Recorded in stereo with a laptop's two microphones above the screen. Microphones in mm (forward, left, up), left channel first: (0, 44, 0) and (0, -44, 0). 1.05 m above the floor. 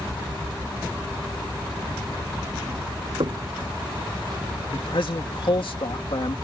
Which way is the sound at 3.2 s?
75° right (ahead or behind).